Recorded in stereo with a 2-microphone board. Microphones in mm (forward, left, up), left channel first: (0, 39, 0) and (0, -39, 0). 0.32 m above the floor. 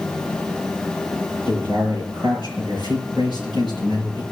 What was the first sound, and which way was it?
A man speaking, 75° right (ahead or behind).